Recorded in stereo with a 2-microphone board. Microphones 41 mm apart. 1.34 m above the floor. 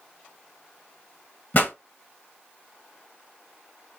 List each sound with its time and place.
1.5 s a pop: 45° left (ahead or behind), 1.6 m